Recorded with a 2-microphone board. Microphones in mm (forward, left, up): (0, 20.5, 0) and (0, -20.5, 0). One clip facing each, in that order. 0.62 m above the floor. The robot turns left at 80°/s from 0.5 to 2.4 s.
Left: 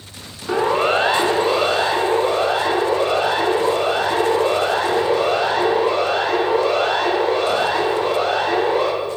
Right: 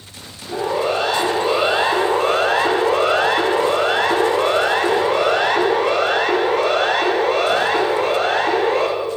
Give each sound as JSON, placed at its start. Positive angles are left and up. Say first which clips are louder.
{"t": 0.5, "sound": "a siren", "louder": "left 3 dB", "side_deg": 75, "distance_m": 6.0}